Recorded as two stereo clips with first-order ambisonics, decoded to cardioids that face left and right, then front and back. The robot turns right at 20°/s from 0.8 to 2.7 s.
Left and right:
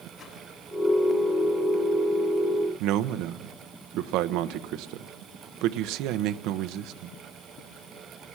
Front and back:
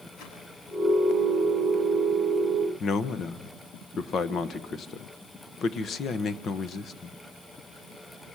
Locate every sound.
0.2 s a whoosh: 15° left, 7.5 m
2.8 s a man speaking: 60° right, 1.0 m